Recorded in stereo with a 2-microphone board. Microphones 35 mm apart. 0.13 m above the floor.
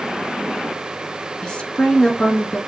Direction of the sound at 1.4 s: 30° left (ahead or behind).